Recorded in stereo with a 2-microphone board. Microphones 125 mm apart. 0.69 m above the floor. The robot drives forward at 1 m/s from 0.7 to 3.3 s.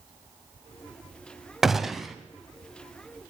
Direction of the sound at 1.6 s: 5° right (ahead or behind).